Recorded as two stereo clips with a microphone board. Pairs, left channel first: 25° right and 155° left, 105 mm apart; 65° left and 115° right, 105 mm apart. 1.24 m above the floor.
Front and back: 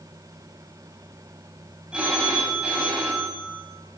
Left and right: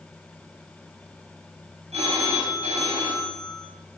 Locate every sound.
1.9 s a phone ringing: 120° right, 6 m